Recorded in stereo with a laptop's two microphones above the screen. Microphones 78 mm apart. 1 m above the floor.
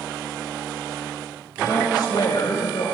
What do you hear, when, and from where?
1.6 s a woman speaking: 55° left (ahead or behind), 5.5 m; by 2.9 s 70° left (ahead or behind), 4.5 m